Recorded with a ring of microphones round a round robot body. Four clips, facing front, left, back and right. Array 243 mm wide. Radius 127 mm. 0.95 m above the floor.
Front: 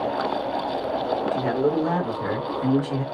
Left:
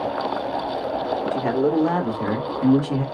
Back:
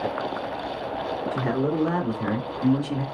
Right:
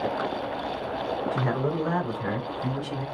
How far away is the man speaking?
About 2.5 m.